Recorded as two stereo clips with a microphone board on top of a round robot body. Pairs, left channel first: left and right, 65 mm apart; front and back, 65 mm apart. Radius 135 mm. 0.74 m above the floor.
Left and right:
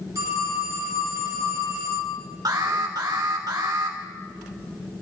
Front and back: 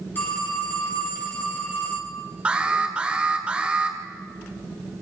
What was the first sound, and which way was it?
A phone ringing, 60° right.